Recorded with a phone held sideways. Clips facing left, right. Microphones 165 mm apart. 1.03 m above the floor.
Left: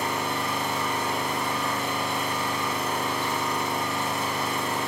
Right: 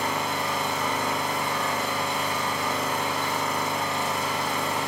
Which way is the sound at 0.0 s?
80° right.